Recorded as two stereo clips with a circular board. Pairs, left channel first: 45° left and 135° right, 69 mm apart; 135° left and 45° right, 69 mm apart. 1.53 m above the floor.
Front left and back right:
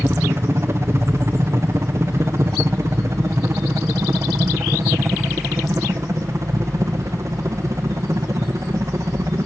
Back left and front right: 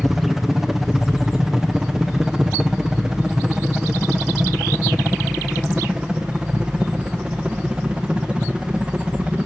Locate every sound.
0.0 s a helicopter: 130° right; by 9.5 s 115° right